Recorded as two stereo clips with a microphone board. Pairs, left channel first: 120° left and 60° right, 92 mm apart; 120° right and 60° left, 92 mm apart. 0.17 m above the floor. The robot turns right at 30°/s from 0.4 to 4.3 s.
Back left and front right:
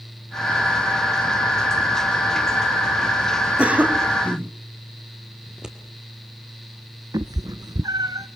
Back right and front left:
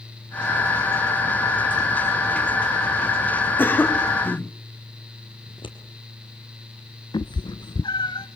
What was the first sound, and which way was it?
A cough, 110° right.